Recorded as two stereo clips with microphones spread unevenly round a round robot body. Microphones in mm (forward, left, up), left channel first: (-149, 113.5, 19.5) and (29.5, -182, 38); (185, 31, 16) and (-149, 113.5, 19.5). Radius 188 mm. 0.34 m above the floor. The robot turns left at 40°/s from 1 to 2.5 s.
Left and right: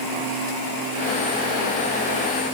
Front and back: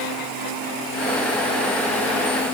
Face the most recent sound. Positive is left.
No sound to turn to.